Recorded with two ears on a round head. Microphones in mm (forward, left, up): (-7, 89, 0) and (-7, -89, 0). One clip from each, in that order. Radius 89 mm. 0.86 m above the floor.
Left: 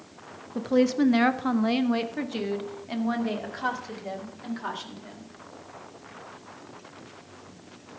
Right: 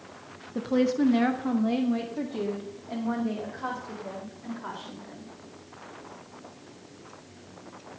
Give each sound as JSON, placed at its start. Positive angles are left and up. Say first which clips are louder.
{"t": 0.6, "sound": "a woman speaking", "louder": "left 2 dB", "side_deg": -5, "distance_m": 0.7}